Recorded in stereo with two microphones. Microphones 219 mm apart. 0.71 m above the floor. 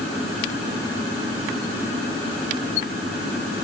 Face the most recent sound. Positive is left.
No sound to turn to.